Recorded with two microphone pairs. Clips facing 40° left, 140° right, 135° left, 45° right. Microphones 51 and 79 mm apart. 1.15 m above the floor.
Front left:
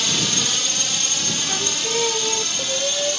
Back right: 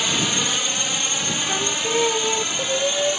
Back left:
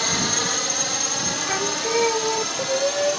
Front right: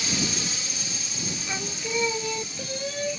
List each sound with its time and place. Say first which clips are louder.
0.0 s a drone: back right 1 dB, back left 5 dB; 150° left
1.5 s singing: back right 3 dB, back left 8 dB; 155° left